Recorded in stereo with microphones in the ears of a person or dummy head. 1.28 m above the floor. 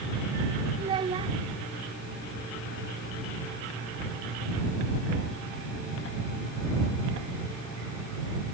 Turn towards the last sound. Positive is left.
turn(degrees=-30)  # may be behind; listen again after turning